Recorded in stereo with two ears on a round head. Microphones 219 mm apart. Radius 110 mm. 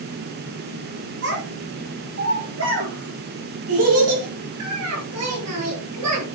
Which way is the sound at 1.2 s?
55° right (ahead or behind).